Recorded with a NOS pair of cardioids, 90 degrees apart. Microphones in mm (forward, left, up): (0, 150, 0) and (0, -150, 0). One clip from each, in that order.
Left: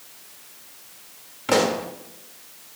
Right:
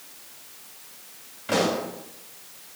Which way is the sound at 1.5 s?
65° left.